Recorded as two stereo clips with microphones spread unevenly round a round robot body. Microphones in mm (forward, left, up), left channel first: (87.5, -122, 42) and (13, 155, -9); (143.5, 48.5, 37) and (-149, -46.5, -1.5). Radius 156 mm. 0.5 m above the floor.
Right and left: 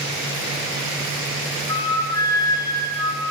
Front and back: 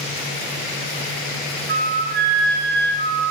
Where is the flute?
155° right, 2.5 m.